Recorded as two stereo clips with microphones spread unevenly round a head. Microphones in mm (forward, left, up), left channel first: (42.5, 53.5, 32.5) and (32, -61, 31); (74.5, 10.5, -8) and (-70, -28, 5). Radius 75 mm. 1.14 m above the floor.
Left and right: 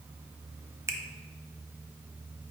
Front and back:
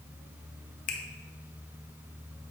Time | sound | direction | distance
0.9 | a finger snap | 25° right | 0.6 m